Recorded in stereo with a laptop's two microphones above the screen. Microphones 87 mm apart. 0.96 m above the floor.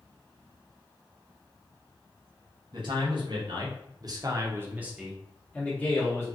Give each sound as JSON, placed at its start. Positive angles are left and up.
{"t": 2.7, "sound": "a man speaking", "side_deg": -60, "distance_m": 1.3}